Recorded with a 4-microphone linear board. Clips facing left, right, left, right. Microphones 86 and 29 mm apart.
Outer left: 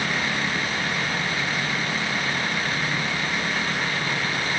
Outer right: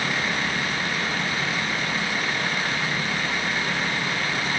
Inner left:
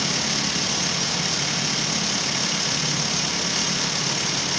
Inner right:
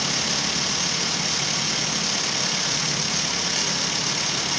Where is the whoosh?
No whoosh in this recording.